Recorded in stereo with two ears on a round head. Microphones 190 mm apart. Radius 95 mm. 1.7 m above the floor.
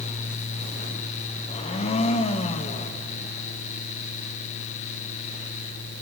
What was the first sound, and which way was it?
A blender, 30° left (ahead or behind).